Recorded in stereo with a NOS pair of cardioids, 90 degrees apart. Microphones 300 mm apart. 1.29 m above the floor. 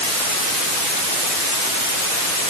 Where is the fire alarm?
No fire alarm in this recording.